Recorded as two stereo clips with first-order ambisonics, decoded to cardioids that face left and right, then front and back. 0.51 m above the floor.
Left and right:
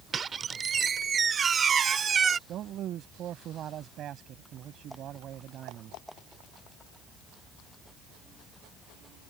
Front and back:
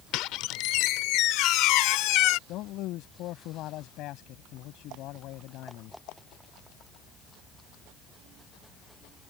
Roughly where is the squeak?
Ahead right.